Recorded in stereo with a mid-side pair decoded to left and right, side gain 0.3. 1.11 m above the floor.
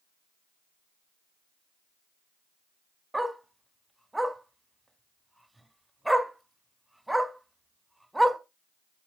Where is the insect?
No insect in this recording.